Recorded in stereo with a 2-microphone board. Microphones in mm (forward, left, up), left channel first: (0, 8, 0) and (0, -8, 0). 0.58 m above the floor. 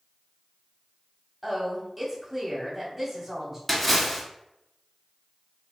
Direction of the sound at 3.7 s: Centre (ahead or behind).